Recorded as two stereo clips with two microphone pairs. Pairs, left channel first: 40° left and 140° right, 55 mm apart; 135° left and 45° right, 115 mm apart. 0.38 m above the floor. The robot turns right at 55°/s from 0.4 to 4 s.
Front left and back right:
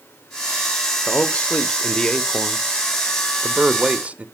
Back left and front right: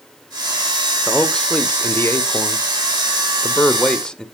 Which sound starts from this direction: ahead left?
A man speaking, at 1.1 s.